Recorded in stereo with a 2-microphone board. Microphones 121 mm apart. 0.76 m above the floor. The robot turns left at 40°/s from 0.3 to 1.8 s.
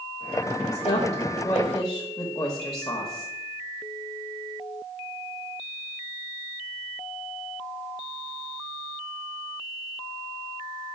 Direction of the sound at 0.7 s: 80° left.